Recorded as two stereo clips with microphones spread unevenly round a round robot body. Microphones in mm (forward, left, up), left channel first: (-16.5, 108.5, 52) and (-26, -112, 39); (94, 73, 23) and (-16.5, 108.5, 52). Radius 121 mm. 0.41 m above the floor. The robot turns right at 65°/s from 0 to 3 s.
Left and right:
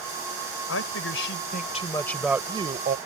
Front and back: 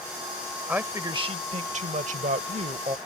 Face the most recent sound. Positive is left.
turn(degrees=-130)